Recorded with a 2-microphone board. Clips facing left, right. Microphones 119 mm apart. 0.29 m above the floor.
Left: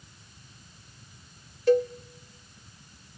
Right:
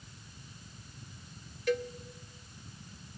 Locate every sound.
1.7 s a cowbell: 30° left (ahead or behind), 0.7 m